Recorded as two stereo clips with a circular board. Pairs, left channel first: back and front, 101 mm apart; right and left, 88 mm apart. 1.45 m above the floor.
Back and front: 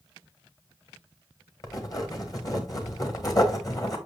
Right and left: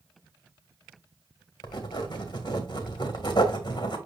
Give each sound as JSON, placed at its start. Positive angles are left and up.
{"t": 1.6, "sound": "writing", "azimuth_deg": -130, "distance_m": 1.6}